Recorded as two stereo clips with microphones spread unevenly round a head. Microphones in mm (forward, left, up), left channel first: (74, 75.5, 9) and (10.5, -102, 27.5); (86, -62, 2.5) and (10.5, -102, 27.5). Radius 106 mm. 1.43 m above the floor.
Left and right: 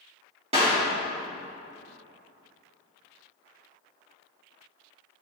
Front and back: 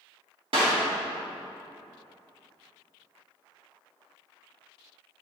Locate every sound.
0.5 s a clap: 170° right, 2 m